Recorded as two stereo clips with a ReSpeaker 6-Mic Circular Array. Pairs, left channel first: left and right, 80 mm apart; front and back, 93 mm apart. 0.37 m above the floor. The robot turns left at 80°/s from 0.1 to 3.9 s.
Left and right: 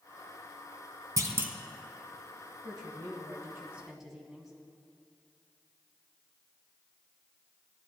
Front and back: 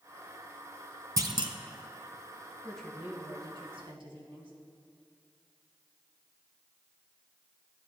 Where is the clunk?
130° right, 0.7 m; by 1.6 s 165° right, 0.7 m.